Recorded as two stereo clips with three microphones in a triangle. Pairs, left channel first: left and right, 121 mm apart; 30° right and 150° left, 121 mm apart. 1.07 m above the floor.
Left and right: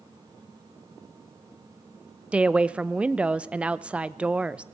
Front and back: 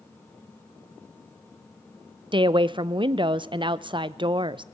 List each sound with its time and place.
2.3 s a woman speaking: 170° right, 0.5 m